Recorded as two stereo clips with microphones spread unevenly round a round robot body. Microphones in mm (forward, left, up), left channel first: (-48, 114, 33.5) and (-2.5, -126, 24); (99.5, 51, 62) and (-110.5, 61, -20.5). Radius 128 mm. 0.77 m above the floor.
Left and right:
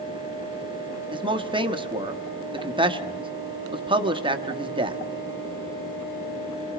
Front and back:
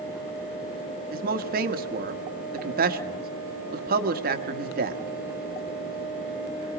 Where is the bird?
I don't hear a bird.